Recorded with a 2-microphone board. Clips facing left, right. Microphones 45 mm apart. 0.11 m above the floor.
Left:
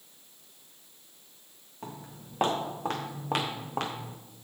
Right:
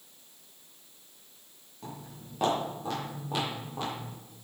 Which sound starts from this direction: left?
Footsteps, at 1.8 s.